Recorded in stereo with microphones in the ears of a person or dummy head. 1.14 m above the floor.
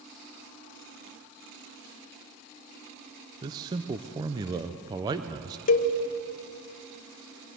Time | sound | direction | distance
3.4 | a man speaking | 20° right (ahead or behind) | 0.7 m
5.7 | a cowbell | 45° left (ahead or behind) | 1.3 m